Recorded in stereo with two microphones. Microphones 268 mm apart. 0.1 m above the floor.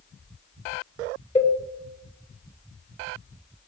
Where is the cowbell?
20° left (ahead or behind), 1.5 m.